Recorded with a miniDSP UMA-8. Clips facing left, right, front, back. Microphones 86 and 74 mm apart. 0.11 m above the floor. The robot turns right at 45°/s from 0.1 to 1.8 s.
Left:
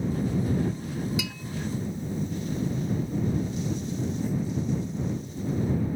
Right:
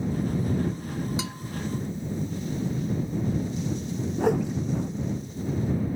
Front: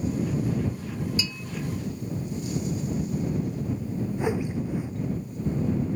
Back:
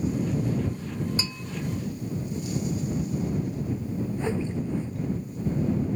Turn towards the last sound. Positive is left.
turn(degrees=-75)